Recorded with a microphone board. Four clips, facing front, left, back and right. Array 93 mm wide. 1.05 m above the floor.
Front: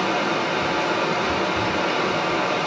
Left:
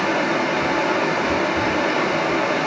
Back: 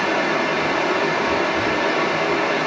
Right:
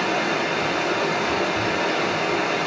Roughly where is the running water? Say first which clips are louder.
Left 3 dB, back 2 dB; behind left.